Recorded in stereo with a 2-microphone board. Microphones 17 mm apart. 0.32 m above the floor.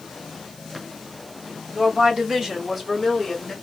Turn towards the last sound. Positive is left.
turn(degrees=15)  # may be behind; listen again after turning